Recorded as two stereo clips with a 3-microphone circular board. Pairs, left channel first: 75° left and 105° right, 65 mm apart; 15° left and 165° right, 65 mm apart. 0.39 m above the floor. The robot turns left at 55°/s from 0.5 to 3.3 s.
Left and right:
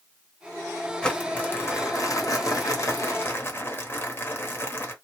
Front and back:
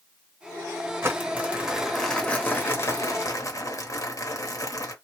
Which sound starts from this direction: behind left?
Crumpling, at 1.0 s.